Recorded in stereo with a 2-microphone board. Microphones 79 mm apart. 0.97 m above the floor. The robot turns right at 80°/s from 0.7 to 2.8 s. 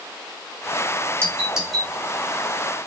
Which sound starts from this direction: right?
A doorbell, at 1.2 s.